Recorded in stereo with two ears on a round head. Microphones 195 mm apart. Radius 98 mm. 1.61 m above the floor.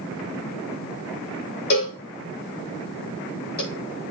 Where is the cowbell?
45° left (ahead or behind), 4.5 m.